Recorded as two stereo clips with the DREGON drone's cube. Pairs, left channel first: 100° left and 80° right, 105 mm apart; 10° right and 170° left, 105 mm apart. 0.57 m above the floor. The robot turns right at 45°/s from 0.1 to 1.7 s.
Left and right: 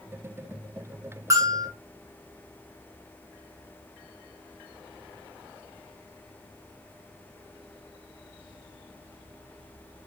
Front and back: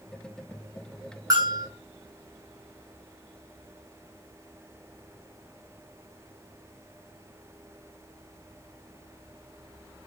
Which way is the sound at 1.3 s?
135° right.